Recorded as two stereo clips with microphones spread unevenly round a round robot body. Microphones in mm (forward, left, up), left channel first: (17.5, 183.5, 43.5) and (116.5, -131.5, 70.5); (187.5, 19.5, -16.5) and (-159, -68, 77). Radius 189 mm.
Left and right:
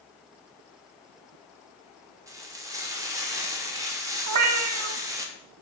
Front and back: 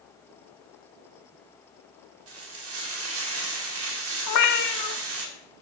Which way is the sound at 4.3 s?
30° right.